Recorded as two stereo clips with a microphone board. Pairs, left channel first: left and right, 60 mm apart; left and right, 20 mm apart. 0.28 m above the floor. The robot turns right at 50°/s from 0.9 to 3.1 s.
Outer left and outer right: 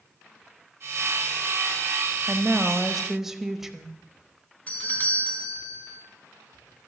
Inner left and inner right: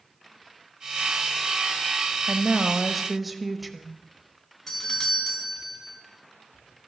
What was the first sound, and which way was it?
A woman speaking, 20° right (ahead or behind).